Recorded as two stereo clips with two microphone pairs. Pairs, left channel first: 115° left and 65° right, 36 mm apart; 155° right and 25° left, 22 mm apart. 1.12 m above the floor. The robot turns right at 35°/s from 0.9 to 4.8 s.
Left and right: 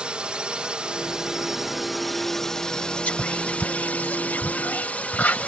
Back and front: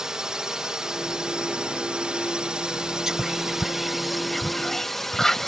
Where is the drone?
15° right; by 5.5 s 135° left.